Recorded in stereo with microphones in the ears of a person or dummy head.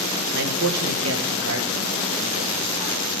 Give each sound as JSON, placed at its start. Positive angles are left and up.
{"t": 0.3, "sound": "a man speaking", "side_deg": -60, "distance_m": 1.6}